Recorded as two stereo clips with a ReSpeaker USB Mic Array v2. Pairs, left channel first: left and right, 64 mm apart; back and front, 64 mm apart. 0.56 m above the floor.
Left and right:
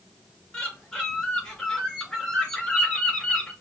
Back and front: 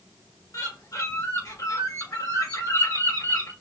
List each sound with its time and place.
0.5 s a bird: 170° left, 1.9 m